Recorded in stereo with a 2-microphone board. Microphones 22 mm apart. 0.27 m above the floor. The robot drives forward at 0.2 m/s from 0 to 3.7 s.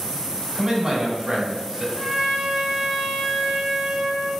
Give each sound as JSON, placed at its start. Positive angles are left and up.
{"t": 0.6, "sound": "a man speaking", "side_deg": -35, "distance_m": 1.2}
{"t": 1.9, "sound": "a trumpet", "side_deg": -35, "distance_m": 0.7}